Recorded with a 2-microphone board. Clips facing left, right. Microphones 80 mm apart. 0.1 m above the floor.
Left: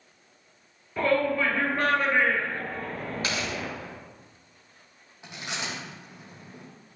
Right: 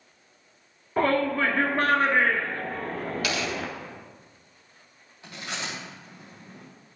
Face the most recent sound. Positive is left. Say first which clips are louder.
# even
turn(degrees=15)  # may be behind; listen again after turning